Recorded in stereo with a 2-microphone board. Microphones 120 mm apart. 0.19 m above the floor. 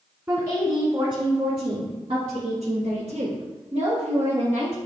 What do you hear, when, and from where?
0.3 s a woman speaking: 25° right (ahead or behind), 1.6 m; by 4.8 s 65° right (ahead or behind), 3.5 m